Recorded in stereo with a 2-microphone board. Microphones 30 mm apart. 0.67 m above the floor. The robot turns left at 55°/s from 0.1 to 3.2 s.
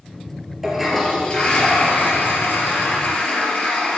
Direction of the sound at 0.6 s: 165° right.